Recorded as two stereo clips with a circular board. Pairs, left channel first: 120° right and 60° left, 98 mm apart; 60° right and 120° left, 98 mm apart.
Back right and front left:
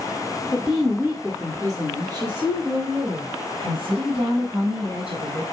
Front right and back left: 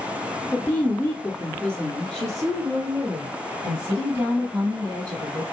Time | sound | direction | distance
0.5 | a woman speaking | 30° right | 1.1 m